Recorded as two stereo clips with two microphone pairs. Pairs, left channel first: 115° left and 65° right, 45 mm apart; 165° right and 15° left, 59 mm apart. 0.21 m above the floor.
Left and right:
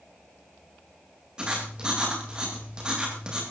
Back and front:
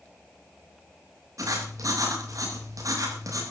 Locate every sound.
1.4 s writing: 5° left, 10 m